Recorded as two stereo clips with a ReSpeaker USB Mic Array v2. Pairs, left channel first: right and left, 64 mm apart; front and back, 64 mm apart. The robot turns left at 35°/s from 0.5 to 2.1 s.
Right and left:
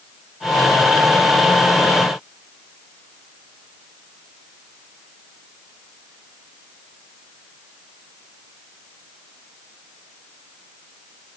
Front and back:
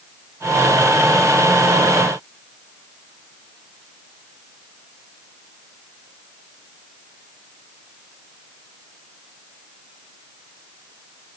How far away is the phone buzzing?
No phone buzzing in this recording.